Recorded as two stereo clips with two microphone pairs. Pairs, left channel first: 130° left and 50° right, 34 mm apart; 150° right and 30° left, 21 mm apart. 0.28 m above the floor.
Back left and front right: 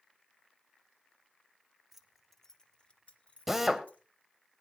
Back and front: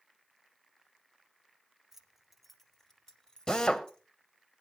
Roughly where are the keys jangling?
Ahead.